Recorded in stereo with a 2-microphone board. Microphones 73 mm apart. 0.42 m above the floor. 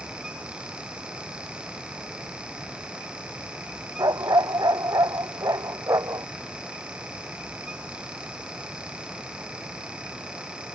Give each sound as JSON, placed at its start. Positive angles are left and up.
{"t": 4.0, "sound": "a dog barking", "side_deg": -60}